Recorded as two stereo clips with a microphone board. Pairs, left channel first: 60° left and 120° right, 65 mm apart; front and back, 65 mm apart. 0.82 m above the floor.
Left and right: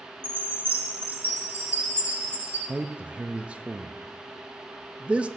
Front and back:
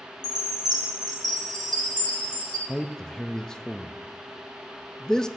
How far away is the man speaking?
About 0.5 m.